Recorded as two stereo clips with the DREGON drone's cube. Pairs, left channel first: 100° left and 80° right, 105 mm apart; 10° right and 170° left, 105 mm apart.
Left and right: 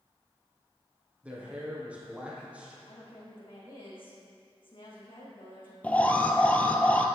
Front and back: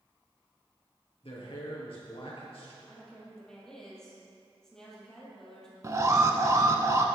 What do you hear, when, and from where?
1.2 s a man speaking: 5° right, 3.5 m
2.9 s a woman speaking: 75° left, 3.5 m
5.8 s an alarm: 160° left, 0.8 m